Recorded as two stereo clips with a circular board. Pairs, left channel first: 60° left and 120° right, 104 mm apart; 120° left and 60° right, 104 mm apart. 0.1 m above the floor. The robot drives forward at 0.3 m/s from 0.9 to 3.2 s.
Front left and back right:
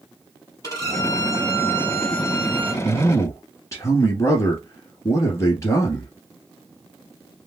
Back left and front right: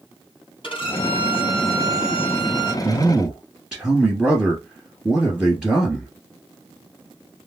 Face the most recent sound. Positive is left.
turn(degrees=35)